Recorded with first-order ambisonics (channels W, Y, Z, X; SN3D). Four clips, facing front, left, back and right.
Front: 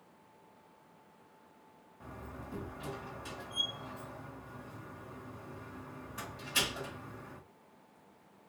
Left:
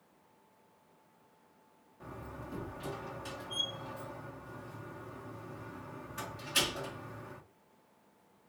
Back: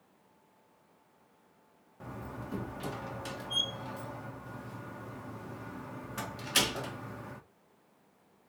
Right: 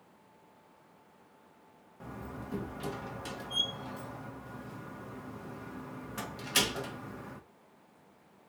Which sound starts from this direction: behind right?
A door slam, at 2.0 s.